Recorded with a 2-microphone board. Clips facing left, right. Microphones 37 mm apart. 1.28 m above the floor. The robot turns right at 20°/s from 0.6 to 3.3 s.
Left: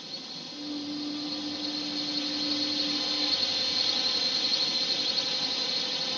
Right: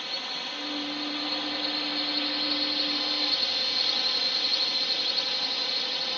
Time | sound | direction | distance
0.0 | a drone | 70° right | ?